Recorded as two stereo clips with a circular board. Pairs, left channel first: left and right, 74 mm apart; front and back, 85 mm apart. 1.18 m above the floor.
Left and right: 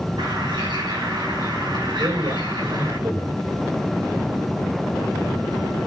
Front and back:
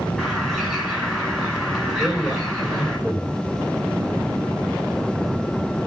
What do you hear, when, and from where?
0.2 s a bird: 80° right, 9.5 m
2.0 s a man speaking: 80° right, 5 m